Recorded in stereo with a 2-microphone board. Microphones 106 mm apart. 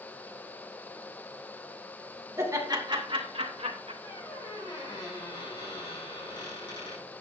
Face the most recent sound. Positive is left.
turn(degrees=45)  # may be behind; listen again after turning